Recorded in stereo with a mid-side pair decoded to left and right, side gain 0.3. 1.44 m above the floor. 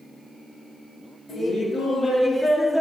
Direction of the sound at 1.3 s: 70° left.